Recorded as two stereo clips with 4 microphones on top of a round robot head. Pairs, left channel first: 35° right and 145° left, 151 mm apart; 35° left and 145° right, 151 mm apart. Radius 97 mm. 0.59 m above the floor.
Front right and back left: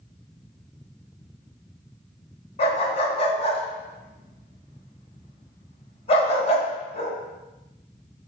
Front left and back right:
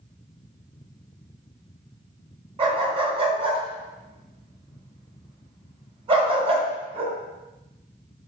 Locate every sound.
2.6 s a dog barking: 90° right, 2 m